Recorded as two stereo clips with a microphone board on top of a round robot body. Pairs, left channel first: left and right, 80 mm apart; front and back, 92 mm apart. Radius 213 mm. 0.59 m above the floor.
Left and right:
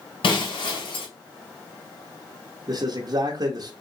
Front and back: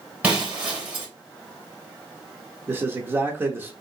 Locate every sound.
0.2 s breaking glass: 100° left, 1.9 m
2.7 s a man speaking: 115° right, 0.9 m